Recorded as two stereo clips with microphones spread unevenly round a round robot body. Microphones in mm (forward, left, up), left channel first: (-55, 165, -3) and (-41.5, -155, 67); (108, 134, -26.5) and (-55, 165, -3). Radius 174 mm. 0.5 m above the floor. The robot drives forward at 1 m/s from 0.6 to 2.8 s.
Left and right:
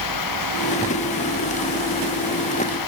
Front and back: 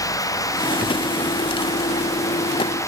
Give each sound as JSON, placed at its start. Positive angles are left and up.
{"t": 0.0, "sound": "running water", "azimuth_deg": 60}